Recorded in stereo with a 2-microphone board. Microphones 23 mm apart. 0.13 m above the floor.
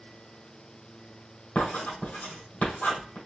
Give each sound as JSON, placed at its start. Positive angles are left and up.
{"t": 1.6, "sound": "writing", "side_deg": 70, "distance_m": 3.5}